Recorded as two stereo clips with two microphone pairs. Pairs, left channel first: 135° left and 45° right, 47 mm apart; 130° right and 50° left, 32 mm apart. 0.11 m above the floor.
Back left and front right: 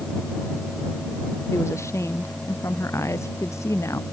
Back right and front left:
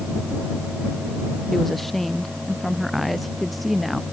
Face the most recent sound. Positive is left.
turn(degrees=140)